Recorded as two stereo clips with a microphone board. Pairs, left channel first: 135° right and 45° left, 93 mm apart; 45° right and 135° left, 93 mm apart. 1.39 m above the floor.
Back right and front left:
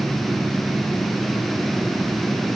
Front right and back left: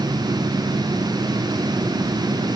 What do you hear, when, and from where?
Only background noise.